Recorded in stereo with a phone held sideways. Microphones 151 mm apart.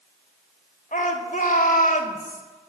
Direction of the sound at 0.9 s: 60° left (ahead or behind).